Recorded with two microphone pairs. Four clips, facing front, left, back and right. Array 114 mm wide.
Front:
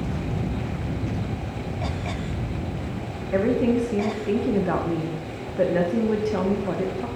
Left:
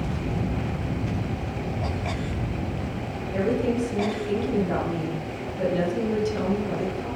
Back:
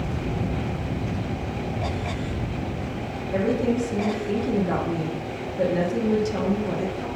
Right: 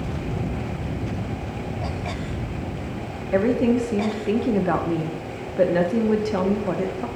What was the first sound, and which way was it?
A woman speaking, 75° right.